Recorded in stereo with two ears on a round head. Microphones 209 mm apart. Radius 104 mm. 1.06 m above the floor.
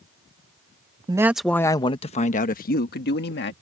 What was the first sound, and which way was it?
A man speaking, 15° right (ahead or behind).